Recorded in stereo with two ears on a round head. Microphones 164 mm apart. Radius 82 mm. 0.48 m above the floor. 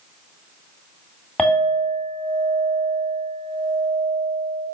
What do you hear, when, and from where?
1.4 s a clink: 5° left (ahead or behind), 2 m